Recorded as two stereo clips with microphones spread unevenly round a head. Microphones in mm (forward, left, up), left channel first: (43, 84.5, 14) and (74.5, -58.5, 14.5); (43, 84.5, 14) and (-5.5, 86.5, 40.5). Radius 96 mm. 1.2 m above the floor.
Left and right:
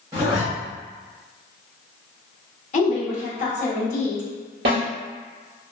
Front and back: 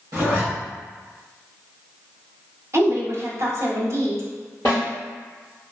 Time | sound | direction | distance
0.1 | a zipper | 150° right | 0.8 m
2.7 | a woman speaking | 135° left | 0.9 m
4.7 | a snare drum | 80° right | 1.8 m